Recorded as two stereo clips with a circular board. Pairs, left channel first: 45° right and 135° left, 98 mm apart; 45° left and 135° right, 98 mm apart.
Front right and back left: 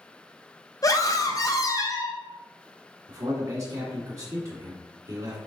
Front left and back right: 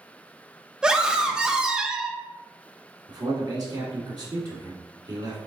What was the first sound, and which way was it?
A scream, 60° right.